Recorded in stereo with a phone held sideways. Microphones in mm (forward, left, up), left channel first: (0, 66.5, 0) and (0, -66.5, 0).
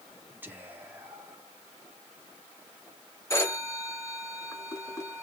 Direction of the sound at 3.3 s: 20° left (ahead or behind).